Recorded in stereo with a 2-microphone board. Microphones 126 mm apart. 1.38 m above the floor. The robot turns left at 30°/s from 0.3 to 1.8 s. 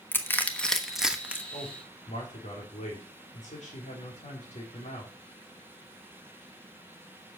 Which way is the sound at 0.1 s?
15° left (ahead or behind).